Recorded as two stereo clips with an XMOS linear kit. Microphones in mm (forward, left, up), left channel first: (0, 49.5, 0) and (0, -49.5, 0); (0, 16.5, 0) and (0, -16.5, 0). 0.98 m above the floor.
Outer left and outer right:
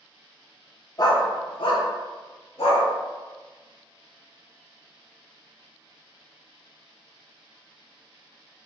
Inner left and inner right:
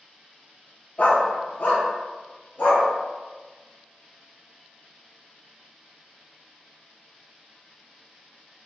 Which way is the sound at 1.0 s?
40° left (ahead or behind).